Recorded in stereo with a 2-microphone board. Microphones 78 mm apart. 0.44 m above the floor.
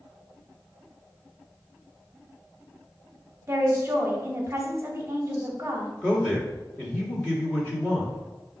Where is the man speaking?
20° left (ahead or behind), 1.2 m.